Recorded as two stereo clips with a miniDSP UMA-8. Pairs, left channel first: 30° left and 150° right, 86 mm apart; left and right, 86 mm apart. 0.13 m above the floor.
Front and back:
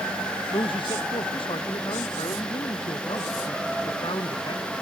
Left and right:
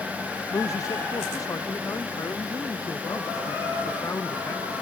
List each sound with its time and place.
0.5 s a man speaking: 45° left; by 4.6 s 40° left